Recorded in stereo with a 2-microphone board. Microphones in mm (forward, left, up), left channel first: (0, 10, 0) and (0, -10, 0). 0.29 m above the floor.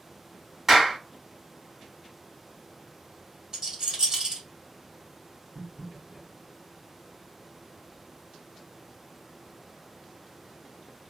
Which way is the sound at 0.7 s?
20° right (ahead or behind).